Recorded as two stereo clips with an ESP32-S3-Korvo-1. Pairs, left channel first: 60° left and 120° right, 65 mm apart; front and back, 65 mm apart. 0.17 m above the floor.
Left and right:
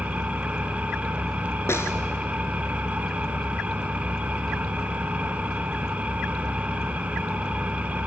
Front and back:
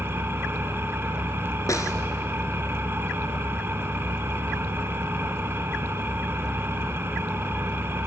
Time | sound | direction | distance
0.0 | an engine running | 175° right | 1.2 m
1.7 | a snare drum | 20° left | 1.6 m